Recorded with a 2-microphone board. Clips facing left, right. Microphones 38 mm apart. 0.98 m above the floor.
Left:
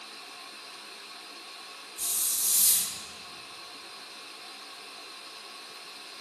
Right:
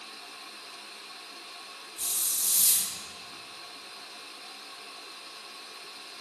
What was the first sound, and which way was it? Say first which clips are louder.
A hiss: even; 35° right (ahead or behind).